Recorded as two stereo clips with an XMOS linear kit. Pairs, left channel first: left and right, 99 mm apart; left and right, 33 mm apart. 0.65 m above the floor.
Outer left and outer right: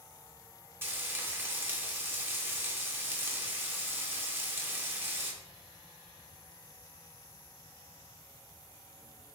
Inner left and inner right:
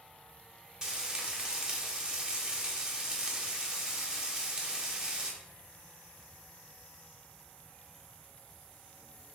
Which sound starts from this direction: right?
Frying, at 0.8 s.